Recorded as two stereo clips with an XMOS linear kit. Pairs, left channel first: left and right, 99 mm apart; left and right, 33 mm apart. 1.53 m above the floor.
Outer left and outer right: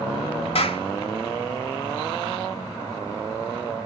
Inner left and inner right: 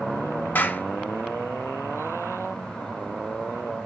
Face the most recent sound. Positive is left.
turn(degrees=75)  # may be behind; listen again after turning